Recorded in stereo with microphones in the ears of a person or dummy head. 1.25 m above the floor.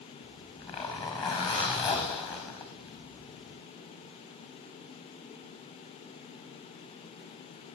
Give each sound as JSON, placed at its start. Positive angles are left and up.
{"t": 0.2, "sound": "a zipper", "side_deg": 25, "distance_m": 4.5}